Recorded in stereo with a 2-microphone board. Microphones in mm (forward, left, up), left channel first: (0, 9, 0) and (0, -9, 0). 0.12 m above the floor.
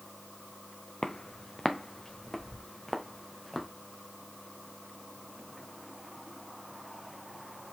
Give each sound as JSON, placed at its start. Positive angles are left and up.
{"t": 1.0, "sound": "footsteps", "side_deg": 55, "distance_m": 0.9}